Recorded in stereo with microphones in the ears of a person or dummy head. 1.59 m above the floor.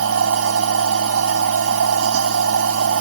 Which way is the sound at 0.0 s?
80° right.